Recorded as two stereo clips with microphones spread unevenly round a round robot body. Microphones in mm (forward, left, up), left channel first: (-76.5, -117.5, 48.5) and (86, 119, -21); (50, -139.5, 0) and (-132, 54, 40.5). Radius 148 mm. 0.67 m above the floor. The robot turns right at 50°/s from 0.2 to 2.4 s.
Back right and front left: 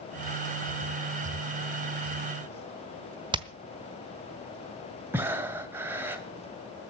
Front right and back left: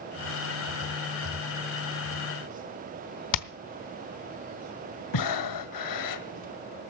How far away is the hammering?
About 1.0 m.